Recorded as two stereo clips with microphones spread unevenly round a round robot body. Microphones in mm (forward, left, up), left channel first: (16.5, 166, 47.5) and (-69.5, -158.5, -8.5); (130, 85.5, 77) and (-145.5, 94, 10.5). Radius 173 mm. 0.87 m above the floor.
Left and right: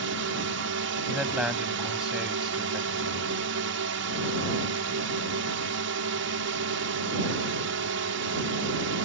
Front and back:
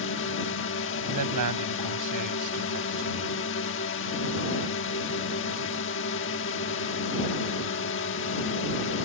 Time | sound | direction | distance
0.0 | a drone | 60° right | ?
1.1 | a man speaking | 165° left | ?